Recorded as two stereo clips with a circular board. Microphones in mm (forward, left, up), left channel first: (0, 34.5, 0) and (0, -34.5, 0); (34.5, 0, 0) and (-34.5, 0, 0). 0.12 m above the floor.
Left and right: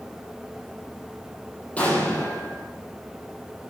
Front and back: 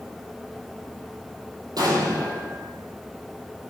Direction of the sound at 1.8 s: 160° left.